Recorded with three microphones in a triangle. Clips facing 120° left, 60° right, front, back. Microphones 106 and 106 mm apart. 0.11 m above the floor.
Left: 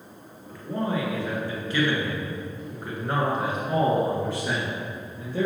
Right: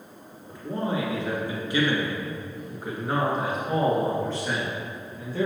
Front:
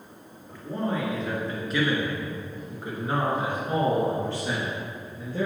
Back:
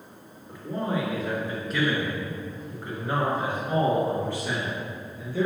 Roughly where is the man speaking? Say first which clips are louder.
Left 1 dB, even; right.